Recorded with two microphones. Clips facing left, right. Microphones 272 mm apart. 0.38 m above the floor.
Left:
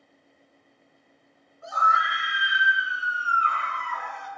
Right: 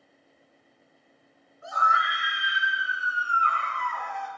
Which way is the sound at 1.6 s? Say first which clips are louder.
Left 1 dB; 50° left (ahead or behind).